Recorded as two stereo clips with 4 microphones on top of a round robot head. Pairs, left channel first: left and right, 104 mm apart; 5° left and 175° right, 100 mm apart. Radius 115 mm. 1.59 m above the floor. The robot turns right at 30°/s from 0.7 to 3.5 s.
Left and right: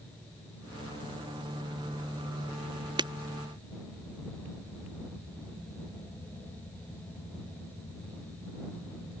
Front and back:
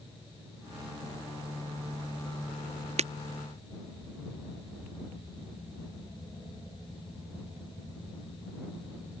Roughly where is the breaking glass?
Behind right.